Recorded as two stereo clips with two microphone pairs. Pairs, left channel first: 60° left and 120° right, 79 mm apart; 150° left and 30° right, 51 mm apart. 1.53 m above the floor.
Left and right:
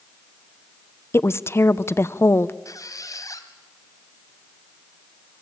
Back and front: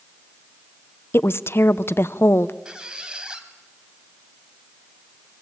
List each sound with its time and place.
1.1 s a woman speaking: 120° left, 0.7 m
2.6 s a squeak: 40° left, 1.8 m